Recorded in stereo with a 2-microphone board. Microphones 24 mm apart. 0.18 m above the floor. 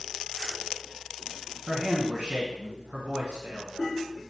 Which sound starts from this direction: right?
A man speaking, at 1.7 s.